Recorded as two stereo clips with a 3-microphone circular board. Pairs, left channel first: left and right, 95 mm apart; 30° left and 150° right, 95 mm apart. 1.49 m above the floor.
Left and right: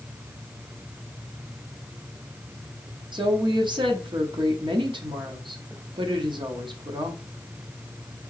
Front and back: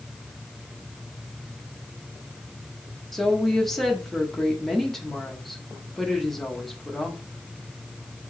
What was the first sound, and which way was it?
A woman speaking, 60° right.